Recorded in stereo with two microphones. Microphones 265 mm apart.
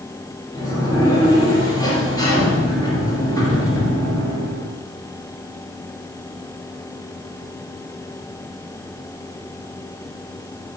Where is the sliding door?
15° left (ahead or behind), 2 m.